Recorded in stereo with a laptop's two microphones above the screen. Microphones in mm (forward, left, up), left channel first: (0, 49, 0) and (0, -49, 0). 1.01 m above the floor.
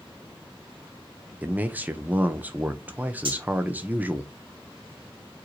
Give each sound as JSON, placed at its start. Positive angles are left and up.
{"t": 1.4, "sound": "a man speaking", "side_deg": -20, "distance_m": 0.7}
{"t": 3.2, "sound": "cutlery clinking", "side_deg": -65, "distance_m": 1.2}